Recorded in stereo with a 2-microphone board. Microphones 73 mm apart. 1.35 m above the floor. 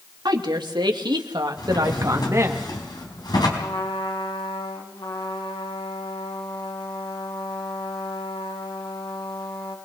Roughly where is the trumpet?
Left.